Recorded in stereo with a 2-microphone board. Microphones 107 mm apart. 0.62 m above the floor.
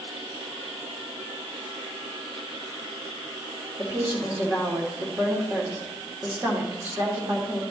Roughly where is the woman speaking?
Right.